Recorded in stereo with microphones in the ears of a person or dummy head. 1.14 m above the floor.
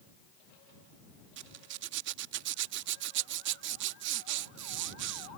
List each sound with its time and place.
1.4 s a zipper: 65° right (ahead or behind)